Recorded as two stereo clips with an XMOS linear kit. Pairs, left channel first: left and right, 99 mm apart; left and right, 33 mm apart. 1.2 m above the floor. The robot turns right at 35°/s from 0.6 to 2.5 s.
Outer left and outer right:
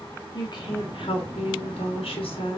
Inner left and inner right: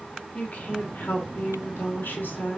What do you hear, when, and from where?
0.3 s a woman speaking: 50° left, 2 m; by 2.6 s 115° left, 2 m